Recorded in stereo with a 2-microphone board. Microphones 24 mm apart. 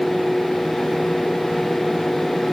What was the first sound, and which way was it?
Only background noise.